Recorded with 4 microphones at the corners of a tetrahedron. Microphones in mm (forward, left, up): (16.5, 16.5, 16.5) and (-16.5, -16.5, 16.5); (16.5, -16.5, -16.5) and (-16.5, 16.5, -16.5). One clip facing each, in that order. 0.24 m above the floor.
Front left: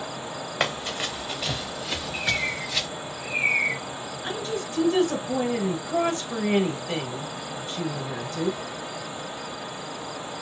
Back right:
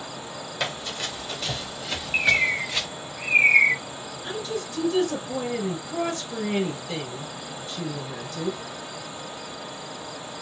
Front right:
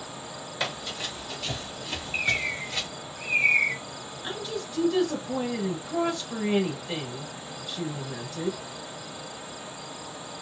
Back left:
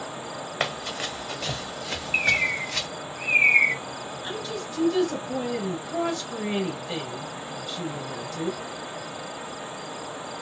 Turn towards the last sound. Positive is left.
turn(degrees=30)